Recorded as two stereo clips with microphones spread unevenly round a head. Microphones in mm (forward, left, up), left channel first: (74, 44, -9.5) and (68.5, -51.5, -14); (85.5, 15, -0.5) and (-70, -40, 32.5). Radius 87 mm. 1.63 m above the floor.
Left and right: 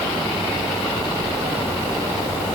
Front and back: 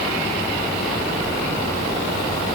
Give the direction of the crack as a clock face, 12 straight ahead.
No crack in this recording.